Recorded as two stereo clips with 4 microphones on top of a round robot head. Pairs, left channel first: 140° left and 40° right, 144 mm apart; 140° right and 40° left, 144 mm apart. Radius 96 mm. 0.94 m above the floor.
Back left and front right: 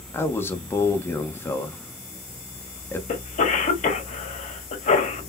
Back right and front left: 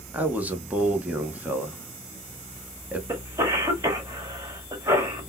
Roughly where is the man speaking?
Left.